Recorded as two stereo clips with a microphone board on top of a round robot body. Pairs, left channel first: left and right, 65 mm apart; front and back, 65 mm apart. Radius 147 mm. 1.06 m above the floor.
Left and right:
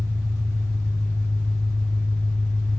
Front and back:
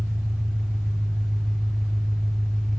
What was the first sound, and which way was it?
An engine running, 90° right.